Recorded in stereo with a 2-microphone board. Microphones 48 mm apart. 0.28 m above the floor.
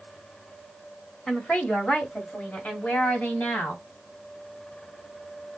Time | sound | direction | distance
1.3 | a woman speaking | 15° left (ahead or behind) | 1.5 m